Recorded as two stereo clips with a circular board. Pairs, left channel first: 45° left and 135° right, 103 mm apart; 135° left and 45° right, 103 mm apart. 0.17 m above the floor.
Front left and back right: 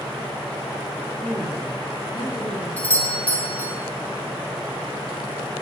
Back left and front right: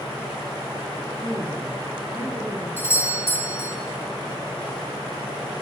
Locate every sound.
1.2 s a woman speaking: 25° right, 2 m; by 2.7 s 30° left, 2.5 m
2.8 s a doorbell: 100° left, 1.7 m